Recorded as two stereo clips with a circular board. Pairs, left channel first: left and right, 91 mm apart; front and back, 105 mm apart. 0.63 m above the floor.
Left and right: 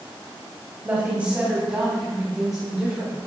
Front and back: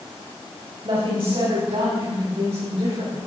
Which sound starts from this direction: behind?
A woman speaking, at 0.8 s.